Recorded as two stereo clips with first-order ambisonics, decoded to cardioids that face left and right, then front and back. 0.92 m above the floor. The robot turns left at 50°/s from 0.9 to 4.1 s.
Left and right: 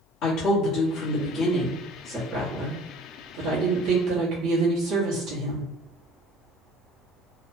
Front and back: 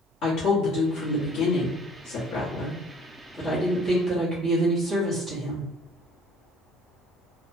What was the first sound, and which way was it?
A woman speaking, 50° left.